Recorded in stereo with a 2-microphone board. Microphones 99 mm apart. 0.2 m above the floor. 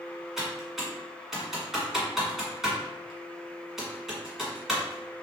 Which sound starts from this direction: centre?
Typing on a keyboard, at 0.4 s.